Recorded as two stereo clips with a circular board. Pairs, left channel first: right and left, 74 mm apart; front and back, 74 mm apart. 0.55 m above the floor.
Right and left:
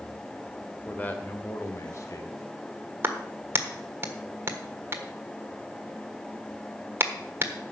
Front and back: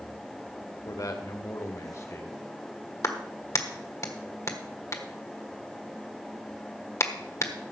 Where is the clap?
40° left, 1.4 m.